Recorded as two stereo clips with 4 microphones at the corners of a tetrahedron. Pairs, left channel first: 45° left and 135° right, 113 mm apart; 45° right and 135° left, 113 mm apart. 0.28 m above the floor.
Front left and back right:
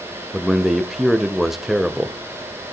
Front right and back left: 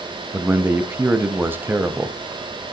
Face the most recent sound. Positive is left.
turn(degrees=140)